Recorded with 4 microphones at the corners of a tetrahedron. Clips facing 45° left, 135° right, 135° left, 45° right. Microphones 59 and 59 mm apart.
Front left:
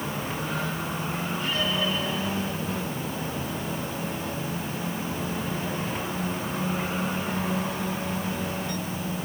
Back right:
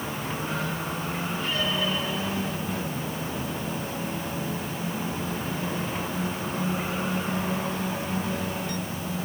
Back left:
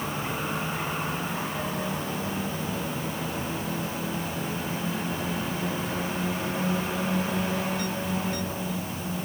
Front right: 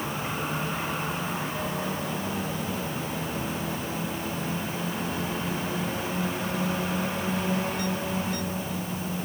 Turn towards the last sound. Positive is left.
No sound to turn to.